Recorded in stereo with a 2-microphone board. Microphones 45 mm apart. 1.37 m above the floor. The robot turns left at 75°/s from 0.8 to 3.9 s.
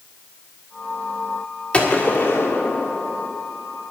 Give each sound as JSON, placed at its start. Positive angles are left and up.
{"t": 1.7, "sound": "a gunshot", "azimuth_deg": 150, "distance_m": 1.7}